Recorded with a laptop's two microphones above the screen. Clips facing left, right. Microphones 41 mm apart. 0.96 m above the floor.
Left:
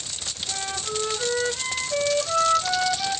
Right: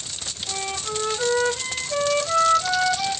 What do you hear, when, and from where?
0.5 s a flute: 30° right (ahead or behind), 1.9 m